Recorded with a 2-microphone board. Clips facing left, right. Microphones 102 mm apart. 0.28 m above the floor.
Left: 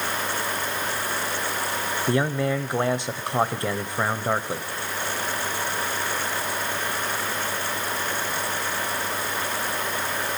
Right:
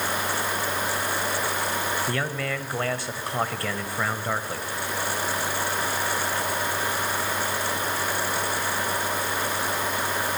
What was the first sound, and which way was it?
A man speaking, 20° left (ahead or behind).